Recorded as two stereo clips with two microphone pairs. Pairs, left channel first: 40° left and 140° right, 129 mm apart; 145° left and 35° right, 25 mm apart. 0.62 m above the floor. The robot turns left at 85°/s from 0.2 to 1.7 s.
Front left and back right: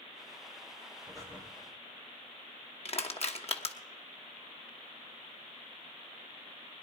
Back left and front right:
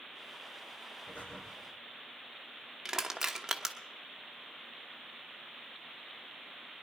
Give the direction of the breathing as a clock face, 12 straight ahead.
7 o'clock.